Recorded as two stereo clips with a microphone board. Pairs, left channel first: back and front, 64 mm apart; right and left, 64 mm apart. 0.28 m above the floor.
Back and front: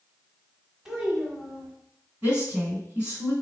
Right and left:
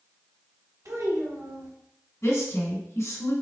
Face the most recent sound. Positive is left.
turn(degrees=-65)